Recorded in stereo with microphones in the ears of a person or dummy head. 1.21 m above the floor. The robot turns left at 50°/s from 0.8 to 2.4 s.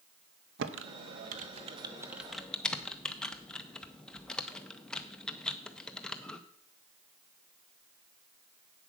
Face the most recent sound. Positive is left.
turn(degrees=0)  # may be behind; listen again after turning